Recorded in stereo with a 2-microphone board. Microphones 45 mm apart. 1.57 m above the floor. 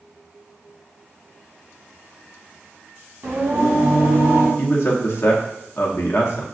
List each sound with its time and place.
3.2 s singing: 55° right (ahead or behind), 1.8 m
4.6 s a man speaking: 55° left (ahead or behind), 0.8 m